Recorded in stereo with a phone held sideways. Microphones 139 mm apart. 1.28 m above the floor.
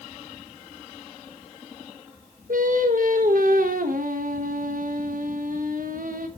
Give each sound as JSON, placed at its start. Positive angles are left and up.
{"t": 2.5, "sound": "singing", "side_deg": -85, "distance_m": 1.3}